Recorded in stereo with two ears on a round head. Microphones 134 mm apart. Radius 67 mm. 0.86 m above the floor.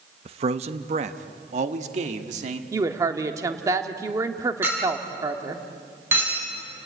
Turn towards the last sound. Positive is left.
turn(degrees=-15)  # may be behind; listen again after turning